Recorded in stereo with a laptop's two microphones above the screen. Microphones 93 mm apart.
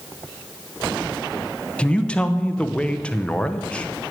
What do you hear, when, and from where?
1.8 s a man speaking: 10° left (ahead or behind), 0.6 m